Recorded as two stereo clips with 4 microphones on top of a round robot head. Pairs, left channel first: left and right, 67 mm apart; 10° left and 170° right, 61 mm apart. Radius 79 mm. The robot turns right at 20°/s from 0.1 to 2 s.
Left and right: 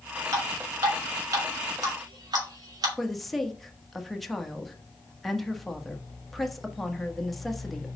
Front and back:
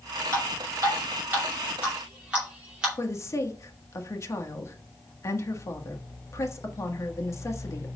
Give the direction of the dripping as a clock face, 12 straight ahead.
4 o'clock.